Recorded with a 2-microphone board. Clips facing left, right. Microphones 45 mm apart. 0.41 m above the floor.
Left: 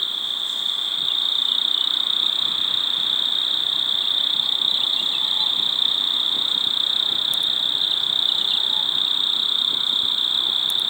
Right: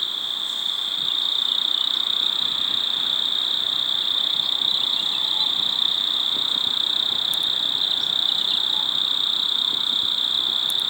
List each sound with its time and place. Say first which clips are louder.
0.0 s an insect: left 1 dB; 20° left (ahead or behind)